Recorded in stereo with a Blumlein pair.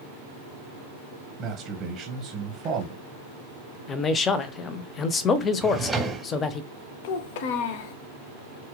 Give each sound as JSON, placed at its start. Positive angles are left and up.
{"t": 1.4, "sound": "a man speaking", "azimuth_deg": -20, "distance_m": 0.8}
{"t": 3.9, "sound": "a man speaking", "azimuth_deg": 25, "distance_m": 0.5}
{"t": 5.6, "sound": "a drawer", "azimuth_deg": -5, "distance_m": 0.8}
{"t": 7.0, "sound": "a child speaking", "azimuth_deg": 50, "distance_m": 0.5}